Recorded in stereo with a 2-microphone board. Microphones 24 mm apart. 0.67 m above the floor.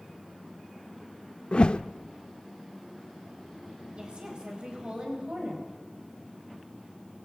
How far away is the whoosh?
About 0.6 m.